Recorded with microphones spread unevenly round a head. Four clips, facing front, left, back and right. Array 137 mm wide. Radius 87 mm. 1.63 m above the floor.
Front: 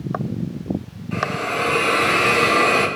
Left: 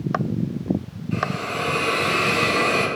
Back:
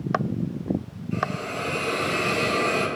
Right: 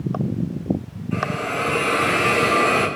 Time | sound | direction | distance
1.1 | a hiss | straight ahead | 8 m